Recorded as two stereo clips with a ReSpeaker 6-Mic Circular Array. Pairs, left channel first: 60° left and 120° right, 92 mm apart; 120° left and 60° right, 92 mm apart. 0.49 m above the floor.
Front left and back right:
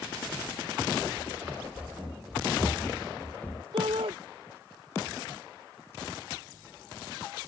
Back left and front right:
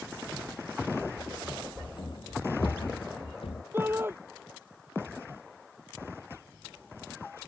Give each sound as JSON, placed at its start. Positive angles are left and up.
{"t": 1.2, "sound": "running footsteps", "azimuth_deg": 160}
{"t": 3.7, "sound": "a shout", "azimuth_deg": -125}